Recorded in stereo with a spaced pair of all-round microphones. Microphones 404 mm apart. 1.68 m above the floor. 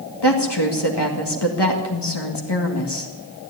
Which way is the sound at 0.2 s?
75° left (ahead or behind).